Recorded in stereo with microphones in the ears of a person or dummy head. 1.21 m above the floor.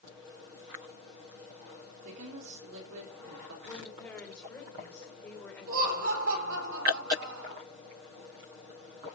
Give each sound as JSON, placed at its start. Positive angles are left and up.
{"t": 2.0, "sound": "a woman speaking", "side_deg": -75, "distance_m": 3.5}
{"t": 3.6, "sound": "a woman speaking", "side_deg": 10, "distance_m": 3.5}
{"t": 5.7, "sound": "laughter", "side_deg": -70, "distance_m": 3.5}